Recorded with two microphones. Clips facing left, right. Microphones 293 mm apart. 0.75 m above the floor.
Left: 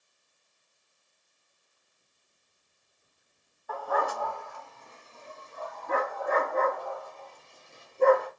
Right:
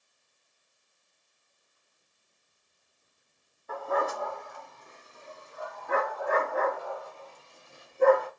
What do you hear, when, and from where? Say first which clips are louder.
3.7 s a dog barking: right 1 dB; 30° right (ahead or behind), 1.2 m; by 8.3 s 5° right (ahead or behind), 3.5 m